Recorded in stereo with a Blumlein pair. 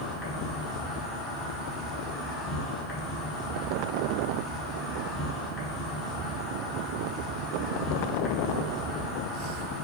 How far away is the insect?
About 0.8 m.